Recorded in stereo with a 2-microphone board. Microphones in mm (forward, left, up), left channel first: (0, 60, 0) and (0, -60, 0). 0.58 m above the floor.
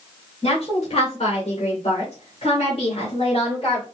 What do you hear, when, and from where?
0.4 s a woman speaking: 60° left (ahead or behind), 2.5 m; by 3.9 s 50° left (ahead or behind), 2.5 m